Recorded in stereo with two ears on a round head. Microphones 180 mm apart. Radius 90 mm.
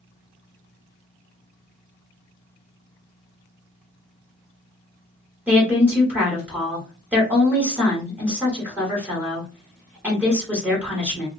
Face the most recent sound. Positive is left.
turn(degrees=-10)  # may be behind; listen again after turning